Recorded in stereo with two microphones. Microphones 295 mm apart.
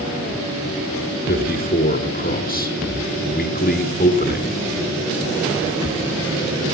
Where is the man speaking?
30° left (ahead or behind), 1.5 m.